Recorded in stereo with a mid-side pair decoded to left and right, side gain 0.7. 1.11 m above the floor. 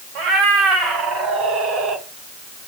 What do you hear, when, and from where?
0.1 s a cat meowing: 65° right, 2 m; by 2.0 s 40° right, 0.9 m